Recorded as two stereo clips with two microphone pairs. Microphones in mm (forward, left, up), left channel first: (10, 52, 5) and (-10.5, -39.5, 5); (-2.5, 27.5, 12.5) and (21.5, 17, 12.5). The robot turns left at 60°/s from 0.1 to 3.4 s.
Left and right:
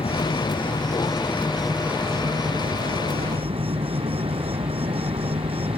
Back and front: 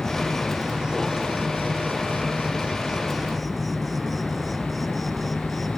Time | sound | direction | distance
0.0 | an insect | 80° left | ?